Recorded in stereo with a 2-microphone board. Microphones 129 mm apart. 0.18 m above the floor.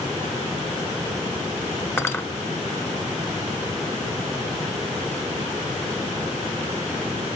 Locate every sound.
2.0 s cutlery clinking: 20° left (ahead or behind), 1.0 m